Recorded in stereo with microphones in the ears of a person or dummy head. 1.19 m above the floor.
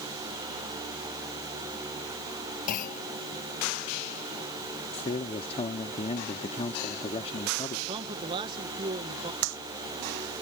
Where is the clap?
85° right.